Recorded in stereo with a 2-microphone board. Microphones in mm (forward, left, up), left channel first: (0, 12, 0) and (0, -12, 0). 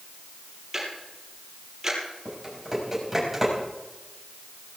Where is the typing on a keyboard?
10° right (ahead or behind), 6.5 m.